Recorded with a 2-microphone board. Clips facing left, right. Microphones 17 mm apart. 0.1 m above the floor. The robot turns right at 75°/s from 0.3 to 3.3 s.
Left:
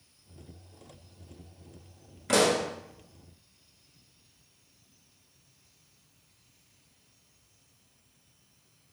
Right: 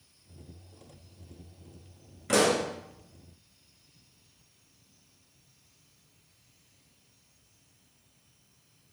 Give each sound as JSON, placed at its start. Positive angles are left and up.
{"t": 2.3, "sound": "a pop", "side_deg": 10, "distance_m": 1.0}